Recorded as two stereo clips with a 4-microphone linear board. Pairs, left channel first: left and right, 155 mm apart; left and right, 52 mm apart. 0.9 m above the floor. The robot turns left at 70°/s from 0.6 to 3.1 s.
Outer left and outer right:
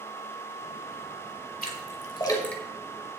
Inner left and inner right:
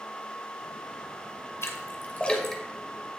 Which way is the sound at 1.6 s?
70° left (ahead or behind).